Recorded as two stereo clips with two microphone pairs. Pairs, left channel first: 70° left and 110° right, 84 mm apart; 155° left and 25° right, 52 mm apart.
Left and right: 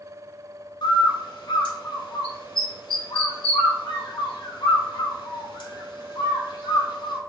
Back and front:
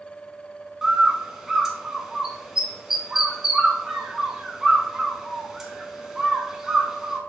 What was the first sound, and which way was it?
A bird, 60° left.